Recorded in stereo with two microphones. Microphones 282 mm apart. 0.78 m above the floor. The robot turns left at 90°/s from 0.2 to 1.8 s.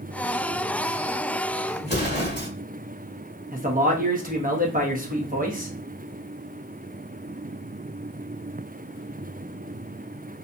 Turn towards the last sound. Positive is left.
turn(degrees=-30)  # may be behind; listen again after turning